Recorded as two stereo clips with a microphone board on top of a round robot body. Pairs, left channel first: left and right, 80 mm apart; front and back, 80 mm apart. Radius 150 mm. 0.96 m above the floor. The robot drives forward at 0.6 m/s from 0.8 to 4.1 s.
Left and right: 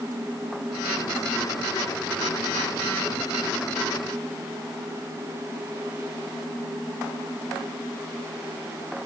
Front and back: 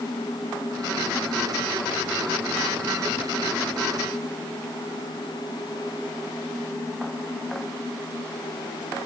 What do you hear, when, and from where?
Only background noise.